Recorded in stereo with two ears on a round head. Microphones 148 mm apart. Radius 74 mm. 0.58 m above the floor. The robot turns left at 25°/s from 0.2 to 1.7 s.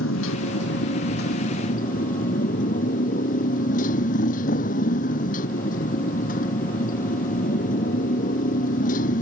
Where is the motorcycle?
85° left; by 9.2 s 50° left.